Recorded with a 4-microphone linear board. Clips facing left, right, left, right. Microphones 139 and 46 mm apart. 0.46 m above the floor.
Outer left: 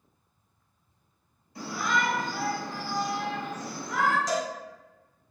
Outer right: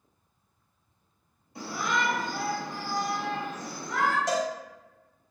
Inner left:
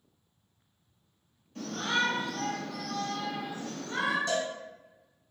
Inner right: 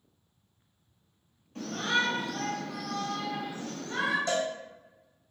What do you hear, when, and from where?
1.6 s a shout: 25° right (ahead or behind), 1.3 m; by 4.2 s 5° left (ahead or behind), 1.1 m
4.3 s a cowbell: 55° right (ahead or behind), 0.7 m